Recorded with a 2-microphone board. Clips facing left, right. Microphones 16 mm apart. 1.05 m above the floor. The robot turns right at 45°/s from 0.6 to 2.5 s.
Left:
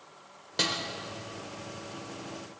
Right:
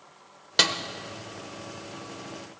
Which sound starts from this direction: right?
A snare drum, at 0.6 s.